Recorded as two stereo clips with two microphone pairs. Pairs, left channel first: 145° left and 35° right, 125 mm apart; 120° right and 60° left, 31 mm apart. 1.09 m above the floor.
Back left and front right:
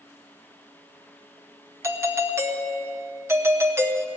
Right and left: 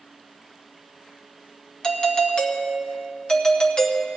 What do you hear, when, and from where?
1.8 s a doorbell: 80° right, 0.9 m